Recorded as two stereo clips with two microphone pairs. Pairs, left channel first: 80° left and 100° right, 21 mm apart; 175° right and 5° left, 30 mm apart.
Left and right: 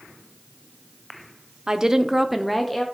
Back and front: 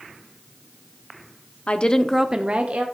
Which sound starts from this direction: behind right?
A woman speaking, at 1.7 s.